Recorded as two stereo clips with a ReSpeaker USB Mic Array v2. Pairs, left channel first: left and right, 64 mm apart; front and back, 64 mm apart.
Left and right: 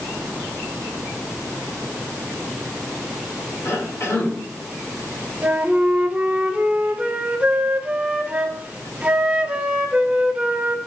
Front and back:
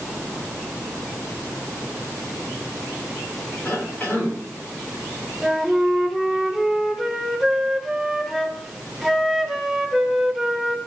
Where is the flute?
100° right, 1.0 m.